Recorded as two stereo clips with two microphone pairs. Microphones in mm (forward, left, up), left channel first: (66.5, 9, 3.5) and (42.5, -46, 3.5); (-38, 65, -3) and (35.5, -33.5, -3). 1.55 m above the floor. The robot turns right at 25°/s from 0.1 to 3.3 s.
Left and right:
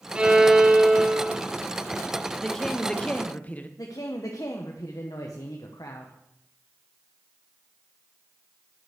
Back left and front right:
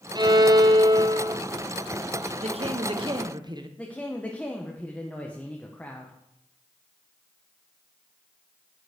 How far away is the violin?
About 0.8 m.